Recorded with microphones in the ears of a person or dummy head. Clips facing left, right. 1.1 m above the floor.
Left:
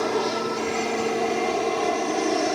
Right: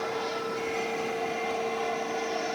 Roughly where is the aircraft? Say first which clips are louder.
Left 7 dB; left.